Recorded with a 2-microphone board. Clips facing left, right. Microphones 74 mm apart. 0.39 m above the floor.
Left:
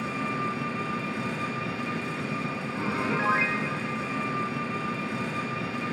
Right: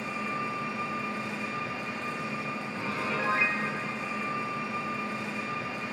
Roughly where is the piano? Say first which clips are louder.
Left 4 dB; left.